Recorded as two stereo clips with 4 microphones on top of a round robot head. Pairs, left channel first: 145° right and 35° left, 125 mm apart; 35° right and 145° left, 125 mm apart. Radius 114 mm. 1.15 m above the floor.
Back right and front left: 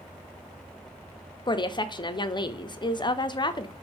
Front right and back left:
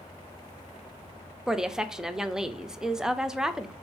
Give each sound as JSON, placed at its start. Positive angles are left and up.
{"t": 1.5, "sound": "a woman speaking", "azimuth_deg": -135, "distance_m": 0.6}